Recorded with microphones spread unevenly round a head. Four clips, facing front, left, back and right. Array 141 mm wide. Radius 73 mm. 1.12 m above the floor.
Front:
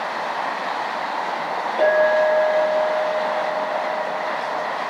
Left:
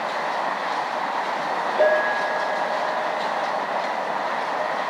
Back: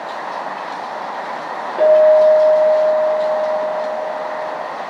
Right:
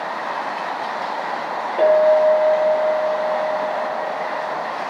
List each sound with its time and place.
1.8 s a clink: 150° right, 1.9 m